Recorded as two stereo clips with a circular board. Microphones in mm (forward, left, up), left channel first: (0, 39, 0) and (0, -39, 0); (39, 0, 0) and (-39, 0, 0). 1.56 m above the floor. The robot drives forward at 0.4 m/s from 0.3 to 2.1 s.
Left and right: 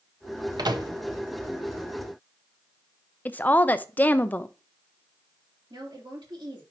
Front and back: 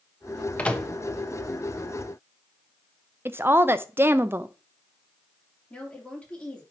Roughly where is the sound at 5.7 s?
Right.